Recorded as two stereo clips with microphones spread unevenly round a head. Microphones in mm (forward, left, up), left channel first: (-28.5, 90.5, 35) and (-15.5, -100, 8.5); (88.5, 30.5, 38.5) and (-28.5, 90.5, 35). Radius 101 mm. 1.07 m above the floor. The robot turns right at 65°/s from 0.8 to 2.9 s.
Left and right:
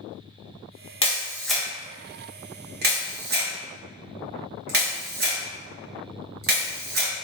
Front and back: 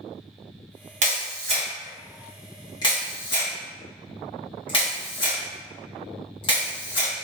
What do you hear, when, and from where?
1.0 s a camera shutter: 155° left, 0.9 m; by 7.1 s 80° right, 0.9 m